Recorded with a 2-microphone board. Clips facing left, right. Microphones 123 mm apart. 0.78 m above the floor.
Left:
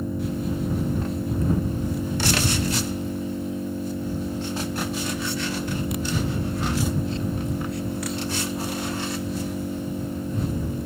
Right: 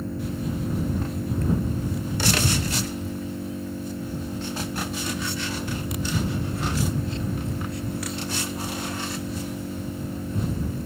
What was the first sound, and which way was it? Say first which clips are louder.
An engine running: left 2 dB; 15° left (ahead or behind).